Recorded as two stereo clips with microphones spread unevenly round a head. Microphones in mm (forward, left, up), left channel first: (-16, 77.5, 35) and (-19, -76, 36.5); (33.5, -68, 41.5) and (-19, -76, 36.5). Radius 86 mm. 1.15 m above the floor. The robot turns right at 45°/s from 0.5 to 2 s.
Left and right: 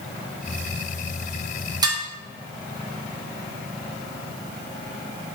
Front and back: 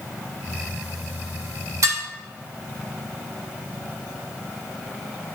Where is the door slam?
No door slam in this recording.